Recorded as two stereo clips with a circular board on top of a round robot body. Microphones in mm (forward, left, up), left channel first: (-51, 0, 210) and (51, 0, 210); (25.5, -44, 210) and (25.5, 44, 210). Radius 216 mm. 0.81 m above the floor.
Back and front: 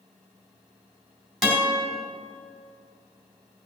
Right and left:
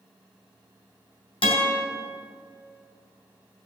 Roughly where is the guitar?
Right.